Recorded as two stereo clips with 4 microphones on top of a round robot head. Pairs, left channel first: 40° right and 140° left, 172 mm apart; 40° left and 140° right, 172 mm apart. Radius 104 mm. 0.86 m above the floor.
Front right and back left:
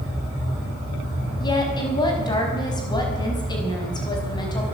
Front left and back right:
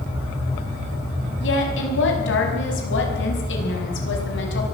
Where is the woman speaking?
30° left, 6 m.